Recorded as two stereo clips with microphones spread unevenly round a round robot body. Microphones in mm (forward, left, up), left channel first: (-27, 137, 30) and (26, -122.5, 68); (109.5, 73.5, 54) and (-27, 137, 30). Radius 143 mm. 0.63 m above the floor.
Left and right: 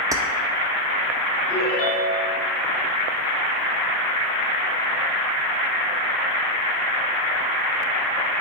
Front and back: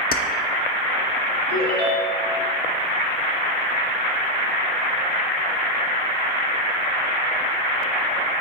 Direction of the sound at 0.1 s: Straight ahead.